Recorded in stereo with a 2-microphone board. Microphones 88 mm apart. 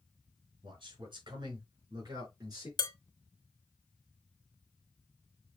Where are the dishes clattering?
55° left (ahead or behind), 1.3 m.